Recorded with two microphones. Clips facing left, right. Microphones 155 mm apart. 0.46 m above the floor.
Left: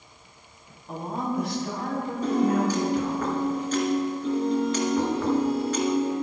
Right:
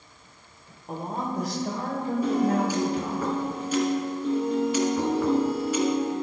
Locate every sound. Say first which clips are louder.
0.9 s a woman speaking: left 1 dB; 40° right (ahead or behind), 1.7 m; by 3.2 s 35° right (ahead or behind), 3 m
2.2 s a piano: left 2 dB; 10° right (ahead or behind), 2 m